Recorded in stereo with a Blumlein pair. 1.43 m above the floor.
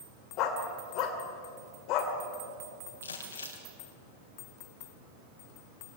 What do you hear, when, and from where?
0.4 s a dog barking: 40° left, 2.5 m
3.0 s crumpling: 70° left, 3.5 m